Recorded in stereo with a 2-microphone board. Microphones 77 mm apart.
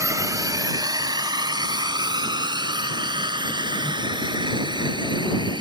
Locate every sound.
0.0 s a drone: 40° right (ahead or behind); by 5.6 s 80° right